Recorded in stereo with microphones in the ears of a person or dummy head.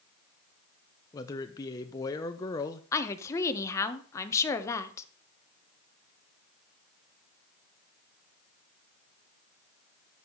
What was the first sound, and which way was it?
A man speaking, 20° left (ahead or behind).